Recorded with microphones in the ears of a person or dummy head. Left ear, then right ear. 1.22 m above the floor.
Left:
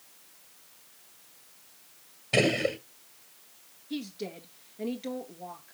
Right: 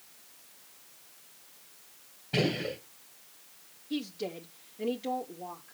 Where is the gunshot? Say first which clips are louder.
Left 5 dB; 60° left (ahead or behind), 1.6 m.